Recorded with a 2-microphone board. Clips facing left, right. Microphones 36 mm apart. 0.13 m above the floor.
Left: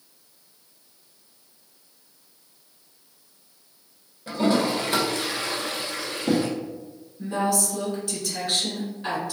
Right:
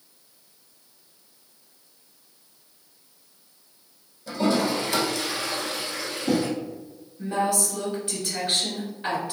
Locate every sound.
4.3 s a toilet flushing: 30° left (ahead or behind), 1.2 m
7.2 s a woman speaking: 20° right (ahead or behind), 1.7 m